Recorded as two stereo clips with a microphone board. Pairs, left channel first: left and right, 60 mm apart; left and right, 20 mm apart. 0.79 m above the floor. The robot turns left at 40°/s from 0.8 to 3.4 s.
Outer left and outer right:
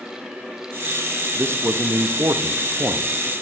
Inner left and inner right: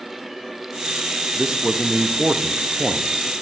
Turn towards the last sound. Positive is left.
turn(degrees=-140)